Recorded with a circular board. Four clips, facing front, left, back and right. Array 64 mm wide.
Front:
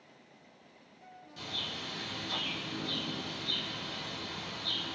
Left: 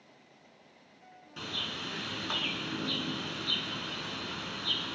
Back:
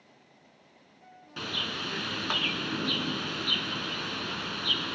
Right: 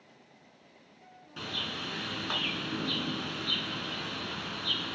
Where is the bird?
170° right, 0.7 m.